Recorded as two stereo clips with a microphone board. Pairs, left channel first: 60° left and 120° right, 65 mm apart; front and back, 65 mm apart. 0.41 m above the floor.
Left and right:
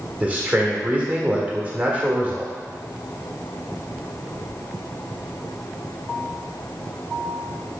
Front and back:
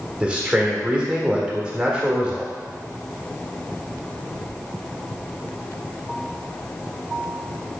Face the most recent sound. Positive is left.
turn(degrees=-130)